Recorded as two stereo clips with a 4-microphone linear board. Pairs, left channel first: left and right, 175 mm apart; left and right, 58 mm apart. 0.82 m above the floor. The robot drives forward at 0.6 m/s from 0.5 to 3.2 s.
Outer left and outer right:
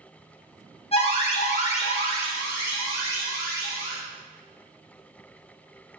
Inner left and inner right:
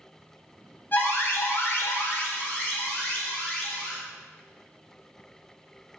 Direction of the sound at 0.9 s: 35° left (ahead or behind).